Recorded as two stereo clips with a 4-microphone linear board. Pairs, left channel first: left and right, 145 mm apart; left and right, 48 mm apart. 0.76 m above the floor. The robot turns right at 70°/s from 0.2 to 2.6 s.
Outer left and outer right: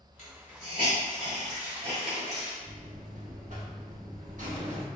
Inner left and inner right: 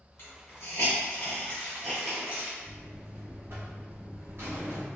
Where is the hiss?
55° left (ahead or behind), 1.5 m; by 2.5 s 35° right (ahead or behind), 1.5 m.